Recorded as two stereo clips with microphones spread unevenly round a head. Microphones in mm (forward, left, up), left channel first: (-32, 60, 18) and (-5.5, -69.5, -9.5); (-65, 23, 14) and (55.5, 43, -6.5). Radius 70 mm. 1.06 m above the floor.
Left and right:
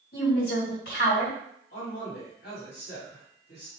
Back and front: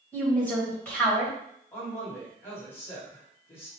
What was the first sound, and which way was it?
A woman speaking, 110° left.